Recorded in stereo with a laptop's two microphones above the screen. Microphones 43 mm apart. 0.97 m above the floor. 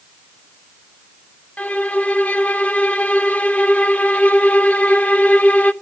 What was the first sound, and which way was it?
A violin, 35° left (ahead or behind).